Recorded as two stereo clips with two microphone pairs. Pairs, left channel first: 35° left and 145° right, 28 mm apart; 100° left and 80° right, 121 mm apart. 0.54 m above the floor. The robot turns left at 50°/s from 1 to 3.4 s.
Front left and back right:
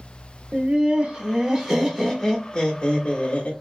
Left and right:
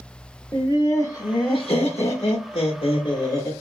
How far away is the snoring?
I don't hear snoring.